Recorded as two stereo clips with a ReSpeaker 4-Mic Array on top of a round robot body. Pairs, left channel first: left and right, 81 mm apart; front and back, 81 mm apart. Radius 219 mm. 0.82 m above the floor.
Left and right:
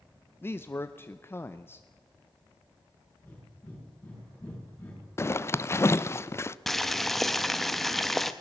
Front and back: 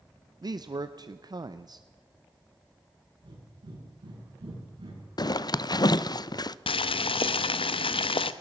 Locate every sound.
0.4 s a man speaking: 150° left, 0.9 m
3.2 s breathing: 165° left, 9 m
5.2 s a zipper: 35° left, 0.7 m
6.7 s boiling: 5° left, 0.6 m